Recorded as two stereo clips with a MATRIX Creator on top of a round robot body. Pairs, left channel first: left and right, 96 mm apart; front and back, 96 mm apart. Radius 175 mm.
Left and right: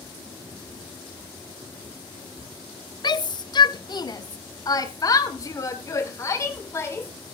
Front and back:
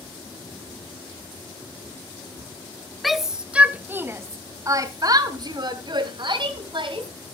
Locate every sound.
3.0 s a shout: 90° left, 1.4 m; by 7.1 s 155° left, 2.5 m